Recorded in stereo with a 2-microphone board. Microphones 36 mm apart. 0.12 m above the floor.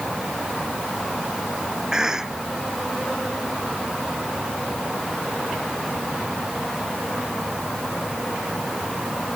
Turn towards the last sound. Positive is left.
turn(degrees=-15)  # may be behind; listen again after turning